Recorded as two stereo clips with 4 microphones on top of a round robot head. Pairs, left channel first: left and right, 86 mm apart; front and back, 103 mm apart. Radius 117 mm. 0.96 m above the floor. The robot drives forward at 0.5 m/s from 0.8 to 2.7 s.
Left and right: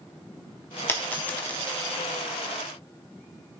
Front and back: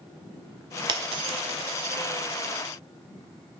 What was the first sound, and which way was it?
A dropped coin, 150° left.